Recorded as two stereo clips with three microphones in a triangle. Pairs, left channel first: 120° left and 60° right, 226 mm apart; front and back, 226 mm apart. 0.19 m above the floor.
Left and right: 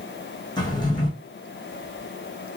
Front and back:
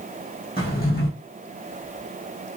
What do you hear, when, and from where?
0.6 s a drawer: 50° left, 2.5 m